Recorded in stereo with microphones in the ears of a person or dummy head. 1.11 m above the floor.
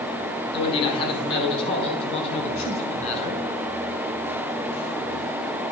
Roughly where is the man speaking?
Left.